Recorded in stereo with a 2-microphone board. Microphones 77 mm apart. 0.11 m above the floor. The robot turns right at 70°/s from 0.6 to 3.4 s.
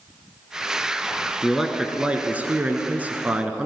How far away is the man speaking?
About 1.1 m.